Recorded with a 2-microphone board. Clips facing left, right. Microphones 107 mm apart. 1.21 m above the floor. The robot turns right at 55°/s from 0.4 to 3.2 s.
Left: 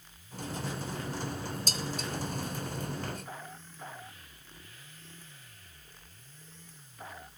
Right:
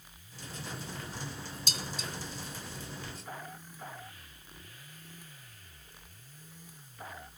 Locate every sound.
1.7 s dishes clattering: 40° left (ahead or behind), 0.6 m; by 2.1 s 55° left (ahead or behind), 0.6 m